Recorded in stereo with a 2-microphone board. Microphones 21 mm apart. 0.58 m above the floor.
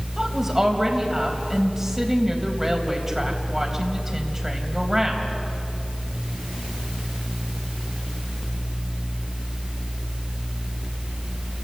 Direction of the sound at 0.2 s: 15° right (ahead or behind).